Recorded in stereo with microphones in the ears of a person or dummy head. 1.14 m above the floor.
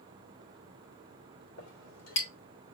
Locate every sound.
1.6 s a clink: 80° left, 2.5 m